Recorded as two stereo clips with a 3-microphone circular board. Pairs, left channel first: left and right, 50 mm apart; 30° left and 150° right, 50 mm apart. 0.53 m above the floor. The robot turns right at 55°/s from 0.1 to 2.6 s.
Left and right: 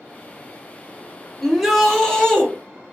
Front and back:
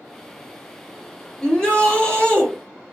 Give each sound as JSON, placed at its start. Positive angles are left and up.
{"t": 1.4, "sound": "a shout", "azimuth_deg": -15, "distance_m": 1.1}